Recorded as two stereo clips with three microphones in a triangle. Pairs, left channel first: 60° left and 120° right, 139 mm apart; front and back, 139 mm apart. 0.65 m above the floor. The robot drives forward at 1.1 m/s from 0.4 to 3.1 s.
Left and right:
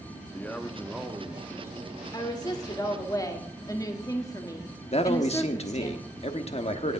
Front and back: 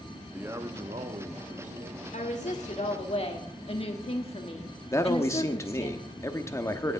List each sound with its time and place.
0.3 s a man speaking: 115° left, 0.8 m; by 2.0 s 170° left, 2 m
2.1 s a woman speaking: 5° left, 2.5 m
4.9 s a man speaking: 65° left, 1.0 m